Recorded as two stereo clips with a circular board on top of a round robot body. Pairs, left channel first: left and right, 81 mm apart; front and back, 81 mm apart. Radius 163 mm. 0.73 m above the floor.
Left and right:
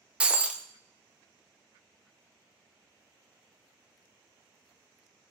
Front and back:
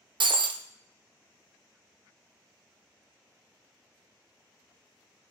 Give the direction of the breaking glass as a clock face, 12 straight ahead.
6 o'clock.